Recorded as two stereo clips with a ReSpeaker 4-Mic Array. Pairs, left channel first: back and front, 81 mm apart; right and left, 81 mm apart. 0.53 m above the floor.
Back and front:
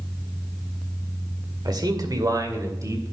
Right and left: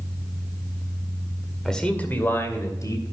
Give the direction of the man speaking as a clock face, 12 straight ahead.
12 o'clock.